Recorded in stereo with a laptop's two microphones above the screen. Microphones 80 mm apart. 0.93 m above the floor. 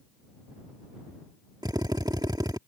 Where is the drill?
60° right (ahead or behind).